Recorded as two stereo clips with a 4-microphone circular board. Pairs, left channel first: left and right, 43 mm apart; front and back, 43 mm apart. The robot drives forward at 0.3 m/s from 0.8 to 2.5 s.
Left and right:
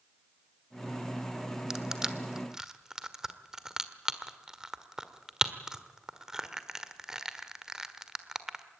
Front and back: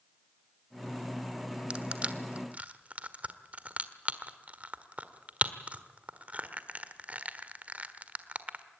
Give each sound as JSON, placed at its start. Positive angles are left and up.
{"t": 1.7, "sound": "crushing", "azimuth_deg": -150, "distance_m": 1.3}